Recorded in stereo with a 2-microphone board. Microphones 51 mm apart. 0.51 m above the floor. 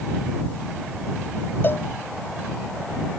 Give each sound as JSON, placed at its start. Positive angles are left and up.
{"t": 1.6, "sound": "a cowbell", "side_deg": 45}